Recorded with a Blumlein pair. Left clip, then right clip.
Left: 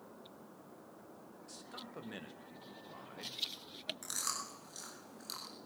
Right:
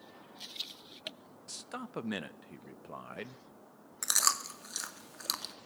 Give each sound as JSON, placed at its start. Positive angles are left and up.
{"t": 1.5, "sound": "a man speaking", "azimuth_deg": -60, "distance_m": 0.9}
{"t": 4.0, "sound": "chewing", "azimuth_deg": -55, "distance_m": 2.0}